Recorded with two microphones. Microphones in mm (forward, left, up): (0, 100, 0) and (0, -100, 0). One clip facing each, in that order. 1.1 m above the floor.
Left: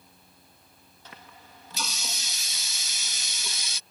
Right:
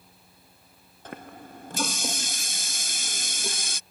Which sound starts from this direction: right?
A running tap, at 1.1 s.